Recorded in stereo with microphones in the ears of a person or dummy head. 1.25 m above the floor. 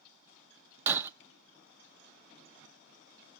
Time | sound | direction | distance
0.9 | breaking glass | 10° right (ahead or behind) | 0.6 m